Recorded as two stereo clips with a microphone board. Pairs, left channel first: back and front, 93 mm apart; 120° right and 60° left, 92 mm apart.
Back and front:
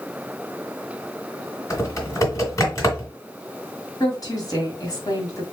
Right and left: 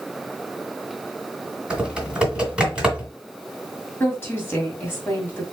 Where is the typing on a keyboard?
135° left, 1.8 m.